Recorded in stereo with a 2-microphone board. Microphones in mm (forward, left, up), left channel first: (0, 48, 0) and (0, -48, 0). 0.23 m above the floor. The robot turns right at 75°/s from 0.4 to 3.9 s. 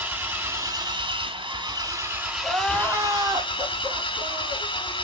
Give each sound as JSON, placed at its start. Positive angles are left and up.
{"t": 0.0, "sound": "an engine running", "azimuth_deg": -155, "distance_m": 0.9}
{"t": 2.4, "sound": "crying", "azimuth_deg": 170, "distance_m": 0.8}